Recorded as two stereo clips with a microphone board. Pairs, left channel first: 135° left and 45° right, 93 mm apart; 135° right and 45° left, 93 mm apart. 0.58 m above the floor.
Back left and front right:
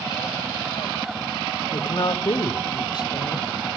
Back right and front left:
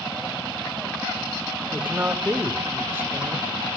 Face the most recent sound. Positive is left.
turn(degrees=110)